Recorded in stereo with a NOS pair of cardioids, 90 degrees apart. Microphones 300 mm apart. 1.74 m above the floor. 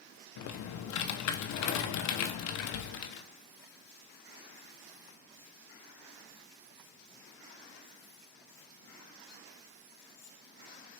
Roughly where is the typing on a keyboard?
Ahead left.